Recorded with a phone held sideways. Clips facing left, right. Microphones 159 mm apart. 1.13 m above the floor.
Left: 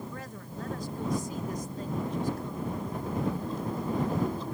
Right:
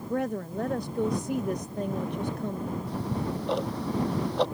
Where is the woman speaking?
65° right (ahead or behind).